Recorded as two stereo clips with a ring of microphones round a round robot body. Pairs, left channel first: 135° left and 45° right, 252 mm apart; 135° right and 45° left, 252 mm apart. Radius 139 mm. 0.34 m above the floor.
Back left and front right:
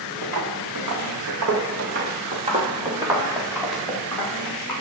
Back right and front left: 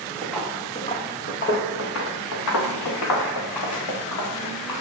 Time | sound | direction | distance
0.2 | footsteps | 45° right | 2.5 m